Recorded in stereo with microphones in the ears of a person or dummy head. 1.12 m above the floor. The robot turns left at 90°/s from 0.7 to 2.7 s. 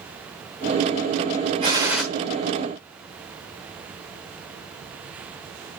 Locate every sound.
1.6 s a gunshot: 145° right, 1.2 m; by 2.0 s straight behind, 1.2 m